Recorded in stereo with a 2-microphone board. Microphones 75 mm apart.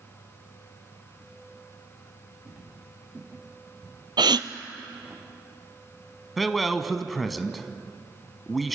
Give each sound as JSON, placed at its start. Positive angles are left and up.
{"t": 2.5, "sound": "footsteps", "side_deg": -15, "distance_m": 7.0}
{"t": 4.2, "sound": "a gasp", "side_deg": -80, "distance_m": 0.8}
{"t": 6.4, "sound": "a man speaking", "side_deg": 0, "distance_m": 1.2}